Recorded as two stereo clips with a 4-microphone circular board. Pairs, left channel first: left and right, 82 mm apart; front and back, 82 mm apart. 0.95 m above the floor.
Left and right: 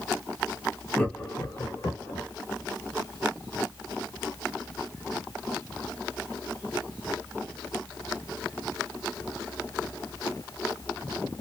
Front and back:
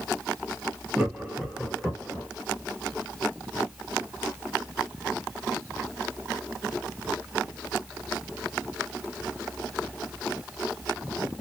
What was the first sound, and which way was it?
Laughter, 140° left.